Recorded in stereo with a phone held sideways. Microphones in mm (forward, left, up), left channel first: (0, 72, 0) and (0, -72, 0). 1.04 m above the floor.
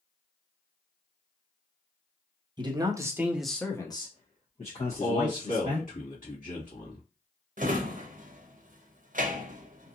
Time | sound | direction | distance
2.6 | a man speaking | 30° right (ahead or behind) | 1.0 m
4.8 | a man speaking | 65° left (ahead or behind) | 1.9 m
7.6 | a drawer | 65° right (ahead or behind) | 0.6 m